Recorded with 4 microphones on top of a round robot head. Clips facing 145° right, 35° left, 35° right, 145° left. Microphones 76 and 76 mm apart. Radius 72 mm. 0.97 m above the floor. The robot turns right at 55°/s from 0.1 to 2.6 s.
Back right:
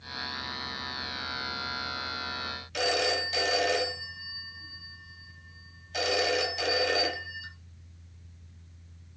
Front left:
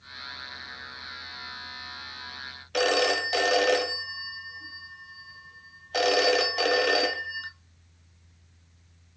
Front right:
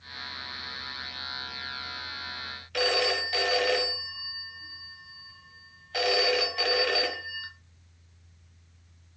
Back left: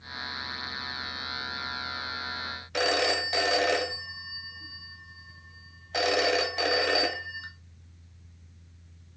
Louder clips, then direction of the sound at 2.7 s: Front left 5 dB, back left 1 dB; 75° left.